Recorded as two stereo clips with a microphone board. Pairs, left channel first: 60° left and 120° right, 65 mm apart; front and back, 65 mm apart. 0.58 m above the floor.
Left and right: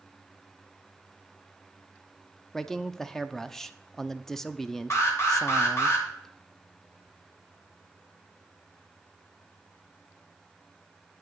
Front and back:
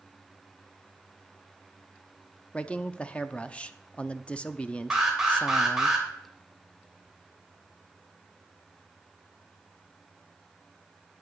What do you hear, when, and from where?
2.5 s a man speaking: 15° right, 0.6 m
4.9 s an alarm: 100° left, 2.5 m